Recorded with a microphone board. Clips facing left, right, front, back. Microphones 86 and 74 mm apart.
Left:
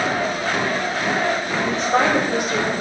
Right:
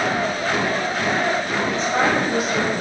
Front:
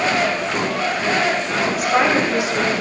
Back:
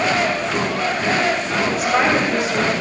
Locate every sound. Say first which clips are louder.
1.6 s a woman speaking: left 3 dB, even; 90° left, 2.5 m; by 2.7 s 80° left, 1.1 m